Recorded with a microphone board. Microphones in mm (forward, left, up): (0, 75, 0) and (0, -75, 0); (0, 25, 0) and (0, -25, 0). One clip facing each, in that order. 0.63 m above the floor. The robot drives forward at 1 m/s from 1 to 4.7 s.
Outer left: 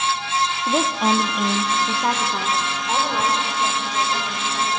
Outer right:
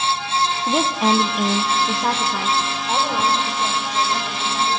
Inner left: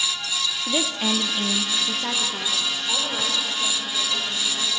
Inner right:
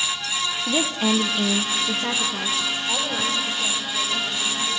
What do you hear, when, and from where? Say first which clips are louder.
0.7 s a woman speaking: outer right 1 dB, inner right 3 dB; centre (ahead or behind), 0.7 m